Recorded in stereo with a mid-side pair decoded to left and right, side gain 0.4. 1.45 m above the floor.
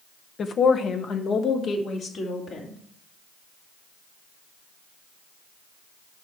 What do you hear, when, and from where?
0.4 s a woman speaking: 55° left, 0.9 m; by 2.8 s 70° left, 3.5 m